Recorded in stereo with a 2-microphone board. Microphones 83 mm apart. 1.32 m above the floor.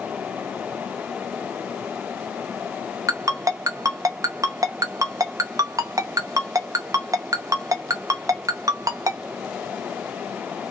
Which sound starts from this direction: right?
A ringtone, at 3.1 s.